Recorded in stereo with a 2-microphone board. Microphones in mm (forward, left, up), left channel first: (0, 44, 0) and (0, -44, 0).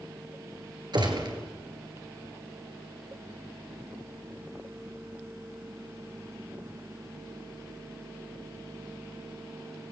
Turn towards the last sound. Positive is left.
turn(degrees=-60)  # may be behind; listen again after turning